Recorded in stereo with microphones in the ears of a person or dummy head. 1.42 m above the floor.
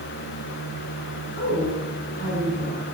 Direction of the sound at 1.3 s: 45° left (ahead or behind).